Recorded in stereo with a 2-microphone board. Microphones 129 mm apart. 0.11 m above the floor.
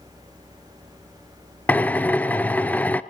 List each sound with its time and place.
1.7 s a drill: 10° left (ahead or behind), 0.6 m